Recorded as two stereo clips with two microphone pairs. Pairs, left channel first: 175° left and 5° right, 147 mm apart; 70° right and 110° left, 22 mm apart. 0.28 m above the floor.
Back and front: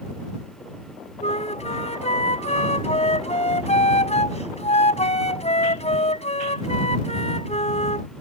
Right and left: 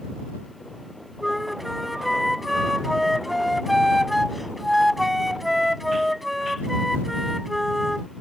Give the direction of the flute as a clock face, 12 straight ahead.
6 o'clock.